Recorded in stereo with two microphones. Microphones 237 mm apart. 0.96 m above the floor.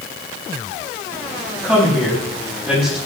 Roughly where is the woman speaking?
Centre.